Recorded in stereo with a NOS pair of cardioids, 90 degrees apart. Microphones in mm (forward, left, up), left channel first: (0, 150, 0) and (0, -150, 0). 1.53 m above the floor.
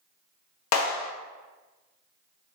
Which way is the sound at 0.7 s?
65° left.